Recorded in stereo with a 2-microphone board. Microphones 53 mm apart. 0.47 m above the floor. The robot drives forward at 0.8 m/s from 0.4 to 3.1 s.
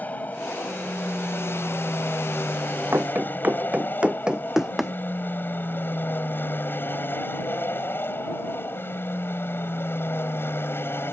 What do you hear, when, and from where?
0.0 s an aircraft: 30° left (ahead or behind); by 11.1 s 45° left (ahead or behind)
2.9 s running footsteps: 45° right (ahead or behind); by 4.9 s centre (ahead or behind)